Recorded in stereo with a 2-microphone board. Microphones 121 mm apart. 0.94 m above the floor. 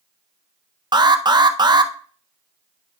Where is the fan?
I don't hear a fan.